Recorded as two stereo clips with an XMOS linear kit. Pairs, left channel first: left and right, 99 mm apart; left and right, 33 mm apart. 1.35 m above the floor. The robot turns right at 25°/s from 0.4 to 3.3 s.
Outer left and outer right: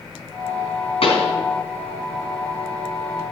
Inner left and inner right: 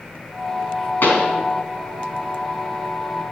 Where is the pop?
65° left (ahead or behind), 3.5 m; by 1.3 s 70° left (ahead or behind), 3.5 m.